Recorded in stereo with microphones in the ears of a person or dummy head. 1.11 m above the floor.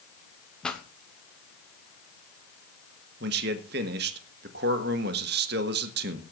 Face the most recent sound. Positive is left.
turn(degrees=-55)  # may be behind; listen again after turning